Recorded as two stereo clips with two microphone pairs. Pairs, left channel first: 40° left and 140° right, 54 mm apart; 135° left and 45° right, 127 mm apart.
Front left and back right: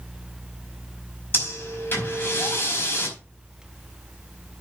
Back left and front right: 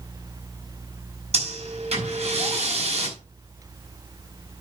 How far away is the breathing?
About 4.5 m.